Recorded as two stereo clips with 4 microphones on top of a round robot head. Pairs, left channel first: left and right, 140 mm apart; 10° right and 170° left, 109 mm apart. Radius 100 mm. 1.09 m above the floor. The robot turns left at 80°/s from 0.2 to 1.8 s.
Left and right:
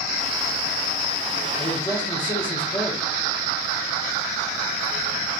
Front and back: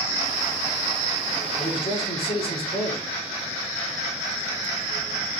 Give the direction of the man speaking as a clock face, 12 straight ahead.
11 o'clock.